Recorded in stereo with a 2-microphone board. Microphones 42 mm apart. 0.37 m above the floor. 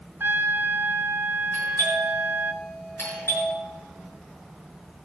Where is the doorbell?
70° left (ahead or behind), 5.5 m.